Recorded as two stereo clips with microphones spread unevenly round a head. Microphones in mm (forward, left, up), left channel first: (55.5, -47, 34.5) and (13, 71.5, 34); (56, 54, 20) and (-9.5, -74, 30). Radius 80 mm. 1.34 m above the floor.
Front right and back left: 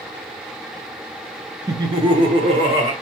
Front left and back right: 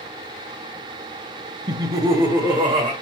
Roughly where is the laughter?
Behind.